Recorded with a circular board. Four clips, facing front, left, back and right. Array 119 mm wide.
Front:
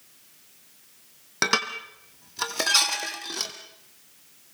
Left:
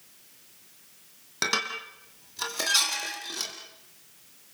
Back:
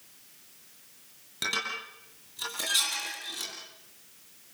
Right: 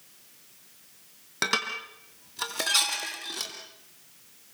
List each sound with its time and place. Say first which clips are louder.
1.4 s dishes clattering: right 1 dB, front 8 dB; 5° right, 3 m